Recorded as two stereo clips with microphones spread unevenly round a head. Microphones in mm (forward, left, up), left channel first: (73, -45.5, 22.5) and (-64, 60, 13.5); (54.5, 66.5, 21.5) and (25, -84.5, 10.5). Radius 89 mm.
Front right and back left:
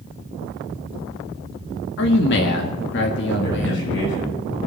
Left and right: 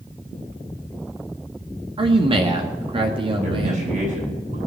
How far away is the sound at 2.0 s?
About 1.8 m.